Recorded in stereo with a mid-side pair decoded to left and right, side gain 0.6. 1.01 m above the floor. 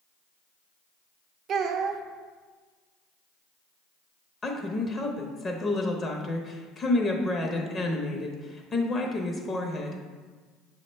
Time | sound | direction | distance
1.5 | a child speaking | 50° right | 0.6 m
4.4 | a woman speaking | 30° left | 0.7 m